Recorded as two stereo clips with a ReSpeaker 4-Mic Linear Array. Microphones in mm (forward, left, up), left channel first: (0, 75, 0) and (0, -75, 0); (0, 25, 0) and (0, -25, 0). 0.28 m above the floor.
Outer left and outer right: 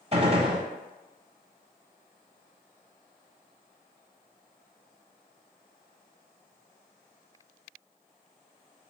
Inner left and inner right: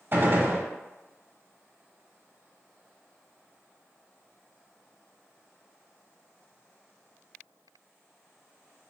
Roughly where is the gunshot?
Right.